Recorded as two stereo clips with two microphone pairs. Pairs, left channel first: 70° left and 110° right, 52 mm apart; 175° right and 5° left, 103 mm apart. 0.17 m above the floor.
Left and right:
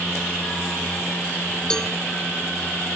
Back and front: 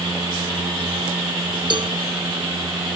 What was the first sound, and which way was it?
A cowbell, 5° right.